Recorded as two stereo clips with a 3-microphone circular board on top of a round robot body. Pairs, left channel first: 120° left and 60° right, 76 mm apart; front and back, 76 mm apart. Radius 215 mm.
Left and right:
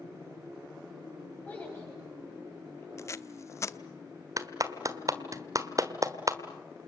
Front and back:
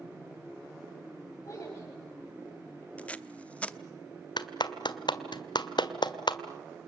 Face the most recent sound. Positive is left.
turn(degrees=-15)